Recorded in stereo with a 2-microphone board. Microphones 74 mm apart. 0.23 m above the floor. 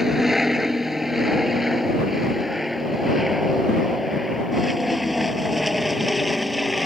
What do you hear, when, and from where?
0.0 s an aircraft: 5° right (ahead or behind); by 6.9 s centre (ahead or behind)